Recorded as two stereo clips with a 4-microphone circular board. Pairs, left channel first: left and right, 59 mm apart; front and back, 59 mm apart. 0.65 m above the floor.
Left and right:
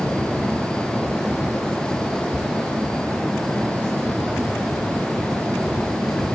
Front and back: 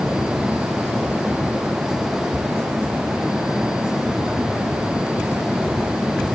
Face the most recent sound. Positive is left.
No sound to turn to.